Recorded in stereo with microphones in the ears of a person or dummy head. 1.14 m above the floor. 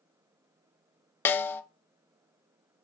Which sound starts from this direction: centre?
A snare drum, at 1.2 s.